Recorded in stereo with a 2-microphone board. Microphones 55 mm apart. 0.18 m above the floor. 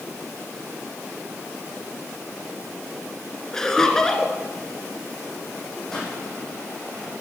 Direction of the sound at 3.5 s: 10° left (ahead or behind).